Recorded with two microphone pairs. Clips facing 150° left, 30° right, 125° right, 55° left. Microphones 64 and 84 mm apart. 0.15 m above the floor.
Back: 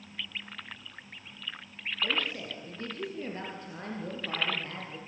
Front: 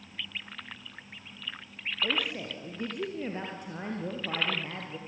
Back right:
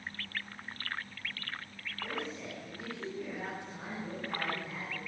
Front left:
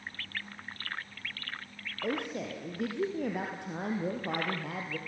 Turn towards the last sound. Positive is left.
turn(degrees=45)